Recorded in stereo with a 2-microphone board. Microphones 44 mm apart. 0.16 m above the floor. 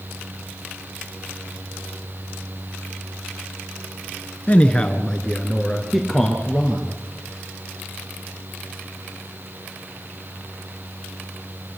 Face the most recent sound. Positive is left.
turn(degrees=-15)  # may be behind; listen again after turning